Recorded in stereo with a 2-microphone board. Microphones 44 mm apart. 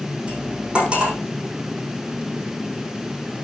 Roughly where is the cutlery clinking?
Right.